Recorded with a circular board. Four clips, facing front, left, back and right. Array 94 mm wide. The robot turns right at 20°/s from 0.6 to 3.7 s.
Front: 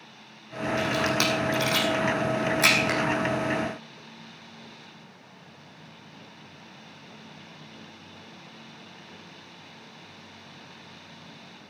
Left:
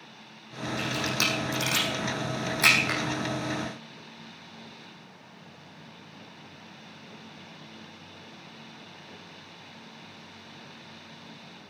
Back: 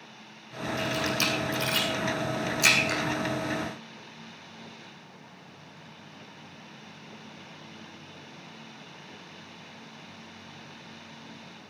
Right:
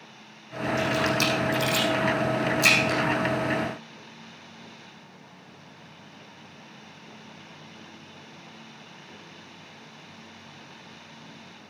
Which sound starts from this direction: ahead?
A camera shutter, at 0.8 s.